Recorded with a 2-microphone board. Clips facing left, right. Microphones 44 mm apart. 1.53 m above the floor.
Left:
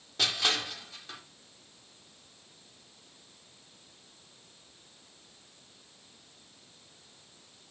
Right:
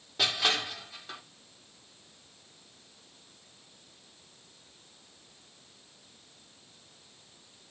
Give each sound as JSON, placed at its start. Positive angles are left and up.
{"t": 0.2, "sound": "crushing", "side_deg": -10, "distance_m": 2.0}